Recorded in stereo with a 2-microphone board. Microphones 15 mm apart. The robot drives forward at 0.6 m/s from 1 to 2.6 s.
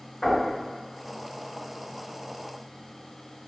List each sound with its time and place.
0.2 s knocking: 50° left (ahead or behind), 1.8 m